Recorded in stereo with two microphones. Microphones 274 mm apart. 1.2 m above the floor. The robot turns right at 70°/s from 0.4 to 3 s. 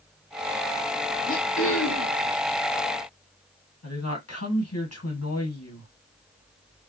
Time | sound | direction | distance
1.3 | throat clearing | 30° left | 1.4 m
3.8 | a woman speaking | 60° left (ahead or behind) | 2 m